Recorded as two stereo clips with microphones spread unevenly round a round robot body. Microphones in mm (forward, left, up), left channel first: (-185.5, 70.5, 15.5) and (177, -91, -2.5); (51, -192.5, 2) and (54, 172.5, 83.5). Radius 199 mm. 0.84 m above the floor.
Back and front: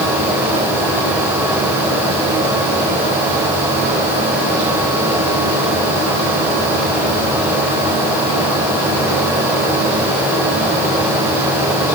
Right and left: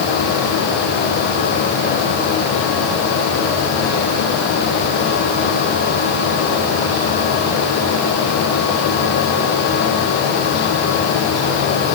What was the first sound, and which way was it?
Only background noise.